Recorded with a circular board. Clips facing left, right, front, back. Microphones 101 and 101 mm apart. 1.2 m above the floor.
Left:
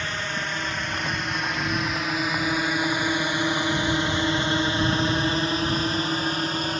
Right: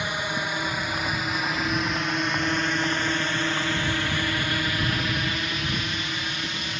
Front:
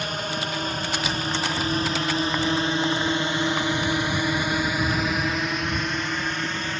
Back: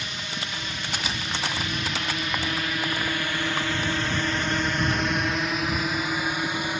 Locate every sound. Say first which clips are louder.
0.0 s a drone: right 1 dB, front 7 dB; 15° right; by 6.8 s 110° left